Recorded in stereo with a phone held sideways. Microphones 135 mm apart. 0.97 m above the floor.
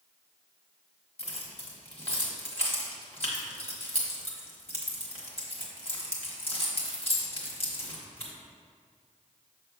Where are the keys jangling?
45° left (ahead or behind), 1.5 m.